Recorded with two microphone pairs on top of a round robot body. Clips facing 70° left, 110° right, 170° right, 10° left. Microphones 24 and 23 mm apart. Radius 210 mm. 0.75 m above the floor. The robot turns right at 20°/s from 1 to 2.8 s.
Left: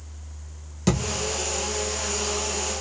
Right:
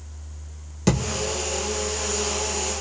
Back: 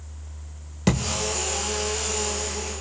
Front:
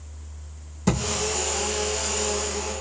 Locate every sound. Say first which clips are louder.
0.9 s a thud: right 1 dB, even; 165° left, 1.4 m; by 1.3 s 170° left, 1.4 m